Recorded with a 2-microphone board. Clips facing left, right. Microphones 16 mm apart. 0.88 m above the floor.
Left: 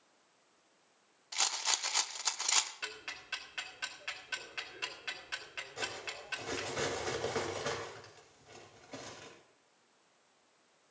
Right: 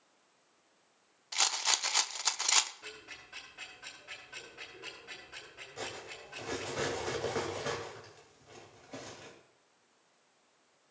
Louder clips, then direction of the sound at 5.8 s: Left 1 dB; 10° left (ahead or behind).